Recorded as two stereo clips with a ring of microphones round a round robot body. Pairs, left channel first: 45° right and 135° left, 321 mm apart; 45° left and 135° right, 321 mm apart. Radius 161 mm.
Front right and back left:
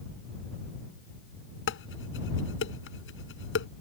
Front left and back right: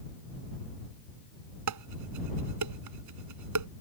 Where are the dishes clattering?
100° right.